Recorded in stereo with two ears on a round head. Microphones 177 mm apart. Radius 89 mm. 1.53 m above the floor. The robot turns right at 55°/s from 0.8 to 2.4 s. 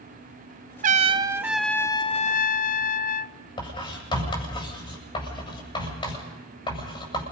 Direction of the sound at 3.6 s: 25° left (ahead or behind).